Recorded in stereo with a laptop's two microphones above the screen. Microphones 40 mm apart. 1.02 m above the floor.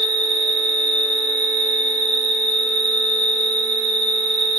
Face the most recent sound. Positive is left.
turn(degrees=20)  # may be behind; listen again after turning